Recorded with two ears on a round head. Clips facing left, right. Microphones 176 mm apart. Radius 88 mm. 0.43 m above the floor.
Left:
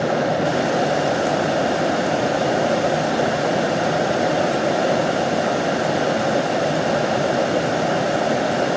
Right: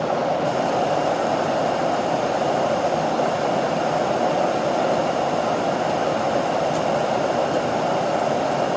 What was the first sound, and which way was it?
Only background noise.